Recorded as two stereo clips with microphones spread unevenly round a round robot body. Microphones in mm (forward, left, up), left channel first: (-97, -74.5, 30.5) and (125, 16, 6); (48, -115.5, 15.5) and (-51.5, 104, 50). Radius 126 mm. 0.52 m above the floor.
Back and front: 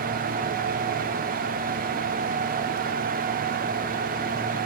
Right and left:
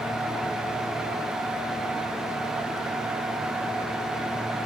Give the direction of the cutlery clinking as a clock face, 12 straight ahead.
I don't hear cutlery clinking.